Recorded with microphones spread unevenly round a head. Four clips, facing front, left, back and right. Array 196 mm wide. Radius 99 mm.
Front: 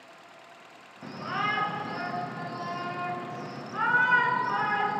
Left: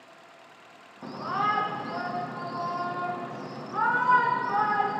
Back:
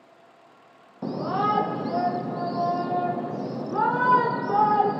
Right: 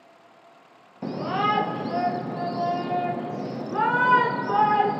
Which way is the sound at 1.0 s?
145° right.